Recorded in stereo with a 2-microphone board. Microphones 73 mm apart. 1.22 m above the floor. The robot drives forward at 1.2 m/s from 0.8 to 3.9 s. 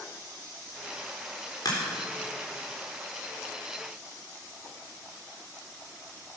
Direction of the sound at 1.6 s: 60° left (ahead or behind).